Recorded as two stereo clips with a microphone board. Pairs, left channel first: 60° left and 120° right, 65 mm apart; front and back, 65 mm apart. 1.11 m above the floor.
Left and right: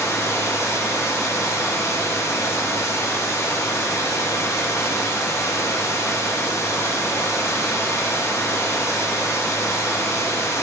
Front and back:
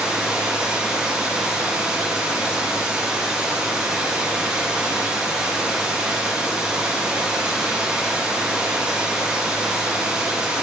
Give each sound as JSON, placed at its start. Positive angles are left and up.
{"t": 0.0, "sound": "running water", "azimuth_deg": 100, "distance_m": 0.9}